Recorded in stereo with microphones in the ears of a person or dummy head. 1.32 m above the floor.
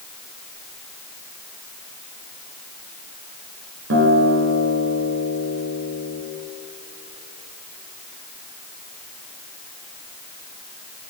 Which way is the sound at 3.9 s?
65° right (ahead or behind).